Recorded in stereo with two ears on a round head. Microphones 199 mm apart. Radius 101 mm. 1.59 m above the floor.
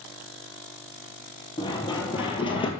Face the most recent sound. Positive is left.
turn(degrees=25)  # may be behind; listen again after turning